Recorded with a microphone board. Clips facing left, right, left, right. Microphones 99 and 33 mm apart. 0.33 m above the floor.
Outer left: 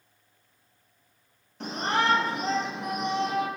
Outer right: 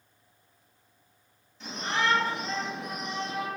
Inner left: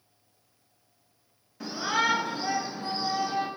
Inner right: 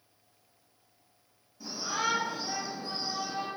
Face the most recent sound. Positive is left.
turn(degrees=70)  # may be behind; listen again after turning